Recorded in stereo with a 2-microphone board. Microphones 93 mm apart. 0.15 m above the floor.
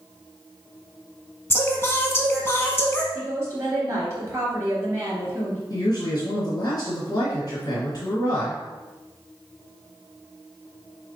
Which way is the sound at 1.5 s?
25° left (ahead or behind).